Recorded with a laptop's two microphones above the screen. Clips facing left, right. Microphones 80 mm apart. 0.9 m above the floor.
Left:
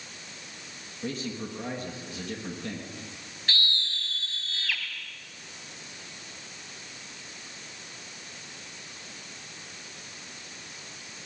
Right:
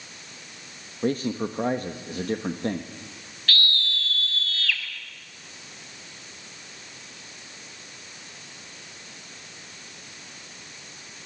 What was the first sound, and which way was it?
A man speaking, 45° right (ahead or behind).